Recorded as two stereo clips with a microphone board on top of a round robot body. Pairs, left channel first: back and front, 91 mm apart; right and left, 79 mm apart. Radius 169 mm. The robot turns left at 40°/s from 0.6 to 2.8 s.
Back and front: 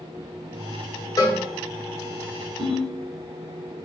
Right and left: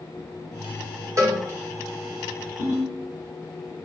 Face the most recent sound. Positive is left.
turn(degrees=15)